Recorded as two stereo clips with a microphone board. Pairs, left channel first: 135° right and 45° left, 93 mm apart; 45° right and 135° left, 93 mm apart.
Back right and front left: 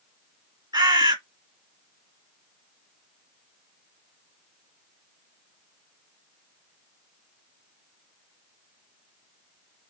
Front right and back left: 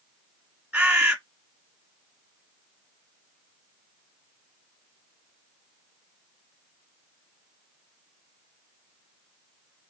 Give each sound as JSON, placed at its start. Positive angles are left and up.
{"t": 0.7, "sound": "a bird", "azimuth_deg": 65, "distance_m": 1.7}